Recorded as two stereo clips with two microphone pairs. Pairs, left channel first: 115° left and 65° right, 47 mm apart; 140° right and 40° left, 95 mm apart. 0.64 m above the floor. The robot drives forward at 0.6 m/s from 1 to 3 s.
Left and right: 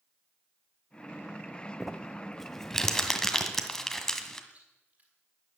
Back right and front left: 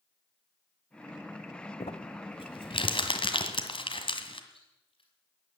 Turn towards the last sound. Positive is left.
turn(degrees=-120)